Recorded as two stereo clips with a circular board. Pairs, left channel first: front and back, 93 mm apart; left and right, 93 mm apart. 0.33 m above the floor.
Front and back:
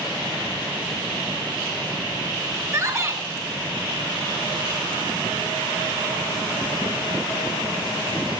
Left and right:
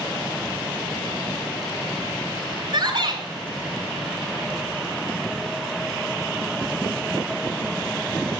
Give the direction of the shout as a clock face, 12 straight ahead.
4 o'clock.